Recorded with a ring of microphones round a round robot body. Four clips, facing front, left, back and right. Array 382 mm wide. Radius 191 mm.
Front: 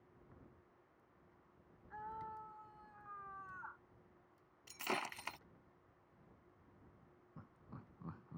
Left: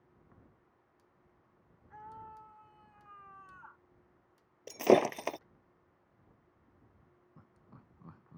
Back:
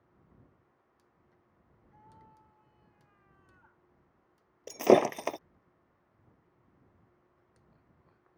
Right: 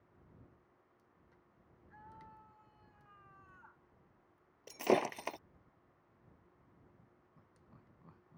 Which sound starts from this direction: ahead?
Laughter, at 7.4 s.